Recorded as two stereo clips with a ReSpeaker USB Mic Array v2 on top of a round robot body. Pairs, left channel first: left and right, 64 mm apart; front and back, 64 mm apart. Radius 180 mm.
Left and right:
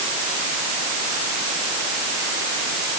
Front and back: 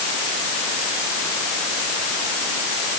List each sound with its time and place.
Only background noise.